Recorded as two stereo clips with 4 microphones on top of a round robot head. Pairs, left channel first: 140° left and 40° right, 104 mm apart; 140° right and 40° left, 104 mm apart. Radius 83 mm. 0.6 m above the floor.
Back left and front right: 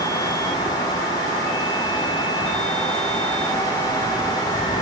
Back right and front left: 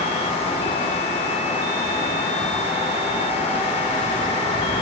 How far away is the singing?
No singing in this recording.